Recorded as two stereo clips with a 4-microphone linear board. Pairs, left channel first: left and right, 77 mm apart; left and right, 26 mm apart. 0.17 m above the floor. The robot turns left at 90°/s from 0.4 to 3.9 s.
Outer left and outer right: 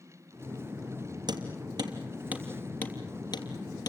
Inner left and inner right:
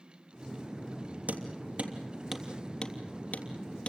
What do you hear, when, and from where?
1.3 s hammering: 60° right (ahead or behind), 3 m; by 3.9 s 55° left (ahead or behind), 3 m